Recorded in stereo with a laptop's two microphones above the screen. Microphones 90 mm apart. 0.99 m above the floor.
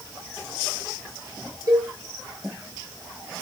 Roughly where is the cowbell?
Right.